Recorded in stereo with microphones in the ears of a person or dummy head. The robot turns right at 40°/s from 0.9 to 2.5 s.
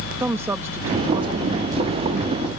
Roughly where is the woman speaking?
Behind.